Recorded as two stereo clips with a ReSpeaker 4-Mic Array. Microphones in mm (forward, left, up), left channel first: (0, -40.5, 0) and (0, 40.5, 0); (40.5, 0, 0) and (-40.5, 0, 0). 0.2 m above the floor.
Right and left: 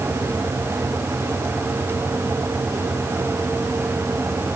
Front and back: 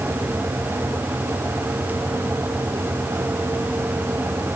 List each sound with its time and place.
Only background noise.